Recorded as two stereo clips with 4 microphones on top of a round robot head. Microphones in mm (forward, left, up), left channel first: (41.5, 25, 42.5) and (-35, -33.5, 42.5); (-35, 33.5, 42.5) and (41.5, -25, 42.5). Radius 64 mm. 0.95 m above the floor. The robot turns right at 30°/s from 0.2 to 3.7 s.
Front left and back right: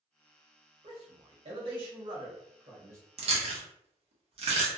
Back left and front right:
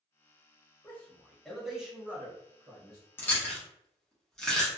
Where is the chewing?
150° right, 0.9 m; by 4.7 s 135° right, 0.9 m.